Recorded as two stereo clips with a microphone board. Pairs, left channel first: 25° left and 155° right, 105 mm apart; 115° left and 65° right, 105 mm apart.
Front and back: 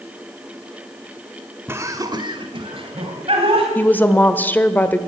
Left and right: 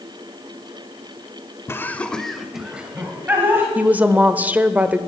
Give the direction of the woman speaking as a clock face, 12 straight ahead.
1 o'clock.